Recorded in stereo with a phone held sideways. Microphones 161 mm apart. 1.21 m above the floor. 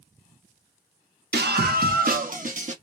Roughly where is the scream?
Right.